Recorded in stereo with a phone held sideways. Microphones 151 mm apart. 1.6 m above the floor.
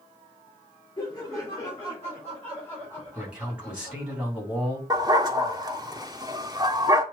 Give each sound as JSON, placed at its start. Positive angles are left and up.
{"t": 1.0, "sound": "laughter", "side_deg": 25, "distance_m": 5.0}
{"t": 3.1, "sound": "a man speaking", "side_deg": -5, "distance_m": 4.5}
{"t": 4.9, "sound": "a dog barking", "side_deg": -25, "distance_m": 1.3}